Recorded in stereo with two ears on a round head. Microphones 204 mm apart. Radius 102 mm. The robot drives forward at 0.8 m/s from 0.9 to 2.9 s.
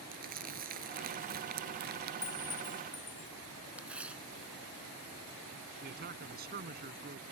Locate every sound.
0.1 s crumpling: 40° right (ahead or behind); by 2.1 s 45° right (ahead or behind)
2.2 s a clink: 15° left (ahead or behind); by 3.3 s 10° left (ahead or behind)
3.8 s tearing paper: 5° right (ahead or behind)
5.8 s a man speaking: 45° right (ahead or behind)